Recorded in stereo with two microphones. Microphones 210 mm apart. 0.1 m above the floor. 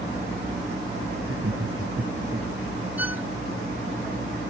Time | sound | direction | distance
1.2 | laughter | 85° right | ?
3.0 | a violin | 75° left (ahead or behind) | ?